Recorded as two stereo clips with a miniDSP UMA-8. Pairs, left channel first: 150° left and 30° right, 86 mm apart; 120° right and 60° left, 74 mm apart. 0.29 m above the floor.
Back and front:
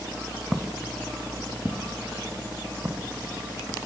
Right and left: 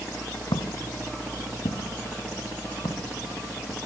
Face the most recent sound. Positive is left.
turn(degrees=-95)